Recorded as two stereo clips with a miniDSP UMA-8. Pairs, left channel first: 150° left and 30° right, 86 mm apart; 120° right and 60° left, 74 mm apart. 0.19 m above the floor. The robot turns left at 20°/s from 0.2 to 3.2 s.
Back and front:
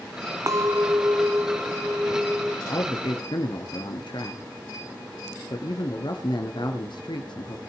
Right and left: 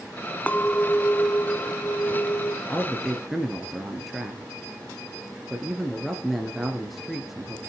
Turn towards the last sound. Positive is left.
turn(degrees=150)